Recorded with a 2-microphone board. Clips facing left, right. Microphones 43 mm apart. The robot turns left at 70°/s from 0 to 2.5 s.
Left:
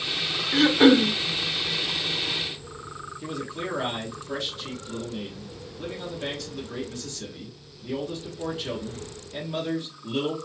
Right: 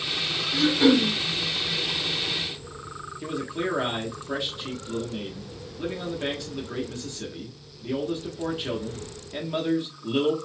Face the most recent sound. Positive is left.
turn(degrees=-25)  # may be behind; listen again after turning